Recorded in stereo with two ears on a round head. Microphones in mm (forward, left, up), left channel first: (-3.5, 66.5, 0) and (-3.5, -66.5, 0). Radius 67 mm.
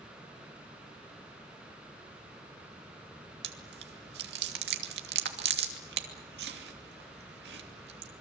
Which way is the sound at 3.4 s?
85° right.